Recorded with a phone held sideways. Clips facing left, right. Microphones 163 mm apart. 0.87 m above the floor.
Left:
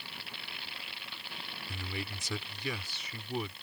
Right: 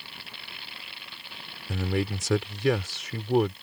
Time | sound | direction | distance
1.7 | a man speaking | 75° right (ahead or behind) | ?